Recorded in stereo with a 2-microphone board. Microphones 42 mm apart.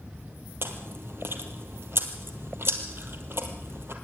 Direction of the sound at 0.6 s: 65° right (ahead or behind).